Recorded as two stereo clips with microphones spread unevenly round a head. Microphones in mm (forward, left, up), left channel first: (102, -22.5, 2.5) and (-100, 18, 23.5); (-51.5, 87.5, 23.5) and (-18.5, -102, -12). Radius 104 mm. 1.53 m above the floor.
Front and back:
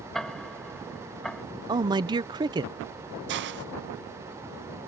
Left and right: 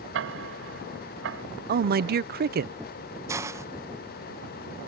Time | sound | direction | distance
0.1 | ticking | 100° right | ?
1.7 | a man speaking | 120° right | ?
3.3 | a hiss | 155° right | ?